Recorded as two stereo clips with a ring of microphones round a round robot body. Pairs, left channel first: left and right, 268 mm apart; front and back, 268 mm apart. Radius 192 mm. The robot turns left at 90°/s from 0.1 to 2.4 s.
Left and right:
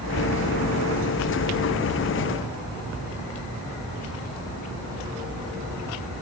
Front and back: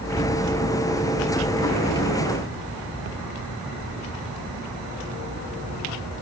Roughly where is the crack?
I don't hear a crack.